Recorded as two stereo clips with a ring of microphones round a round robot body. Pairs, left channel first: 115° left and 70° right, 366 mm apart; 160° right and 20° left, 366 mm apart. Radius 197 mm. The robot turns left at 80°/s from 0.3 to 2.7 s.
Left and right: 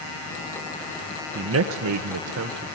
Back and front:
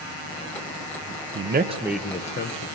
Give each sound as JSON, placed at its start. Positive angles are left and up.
{"t": 1.4, "sound": "a man speaking", "azimuth_deg": -20, "distance_m": 0.8}